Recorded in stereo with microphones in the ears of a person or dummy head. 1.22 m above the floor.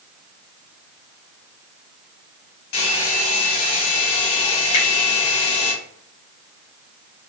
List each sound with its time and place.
2.7 s a hair dryer: 70° left (ahead or behind), 2.5 m
4.7 s a finger snap: 85° left, 2.5 m